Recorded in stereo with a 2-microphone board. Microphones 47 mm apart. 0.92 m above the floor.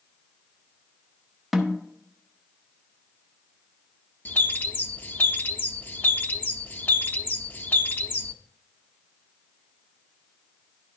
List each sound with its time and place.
1.5 s a snare drum: centre (ahead or behind), 1.1 m
4.2 s a bird: 45° left (ahead or behind), 0.5 m